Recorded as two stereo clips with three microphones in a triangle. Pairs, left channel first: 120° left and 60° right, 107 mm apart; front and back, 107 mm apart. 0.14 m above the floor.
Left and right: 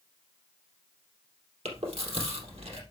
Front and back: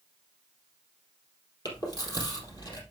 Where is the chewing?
50° right, 4 m.